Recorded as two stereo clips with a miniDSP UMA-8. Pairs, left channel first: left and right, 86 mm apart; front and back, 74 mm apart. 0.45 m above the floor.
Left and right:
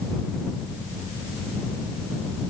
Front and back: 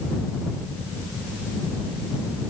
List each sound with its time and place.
Only background noise.